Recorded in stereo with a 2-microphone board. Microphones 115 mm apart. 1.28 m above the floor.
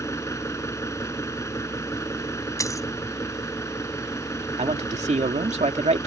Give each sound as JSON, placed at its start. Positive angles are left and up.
{"t": 0.0, "sound": "an engine running", "side_deg": 25}
{"t": 2.6, "sound": "a dropped coin", "side_deg": 30}
{"t": 4.6, "sound": "a man speaking", "side_deg": -80}